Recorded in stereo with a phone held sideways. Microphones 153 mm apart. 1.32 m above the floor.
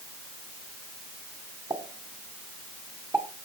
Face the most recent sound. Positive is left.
turn(degrees=-20)  # may be behind; listen again after turning